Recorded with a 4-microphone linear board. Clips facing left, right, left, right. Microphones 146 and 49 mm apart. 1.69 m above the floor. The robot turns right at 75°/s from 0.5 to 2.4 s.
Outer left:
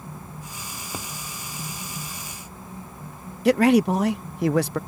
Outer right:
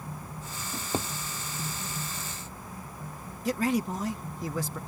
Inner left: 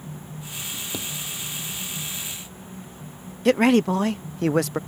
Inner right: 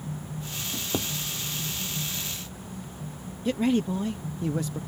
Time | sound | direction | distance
0.7 | a drawer | 45° right (ahead or behind) | ?
3.5 | a man speaking | 70° left (ahead or behind) | ?